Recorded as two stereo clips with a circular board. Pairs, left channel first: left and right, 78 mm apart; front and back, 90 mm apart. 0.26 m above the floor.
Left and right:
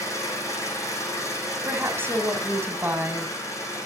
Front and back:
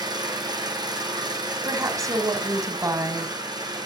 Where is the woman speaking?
140° right, 1.8 m.